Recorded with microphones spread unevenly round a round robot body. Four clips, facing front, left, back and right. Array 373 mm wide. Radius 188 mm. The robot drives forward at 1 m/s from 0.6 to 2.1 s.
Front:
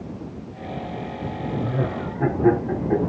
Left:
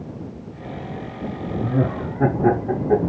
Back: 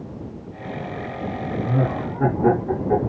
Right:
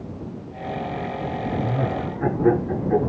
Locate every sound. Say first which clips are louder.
1.6 s laughter: left 6 dB, back 4 dB; 100° left, 3 m; by 3.1 s 110° left, 3 m